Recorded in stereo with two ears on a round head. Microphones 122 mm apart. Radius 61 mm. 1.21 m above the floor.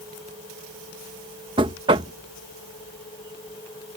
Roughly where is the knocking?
Right.